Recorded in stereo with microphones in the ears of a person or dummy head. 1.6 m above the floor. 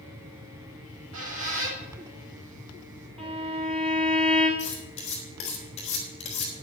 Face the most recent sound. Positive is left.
turn(degrees=30)  # may be behind; listen again after turning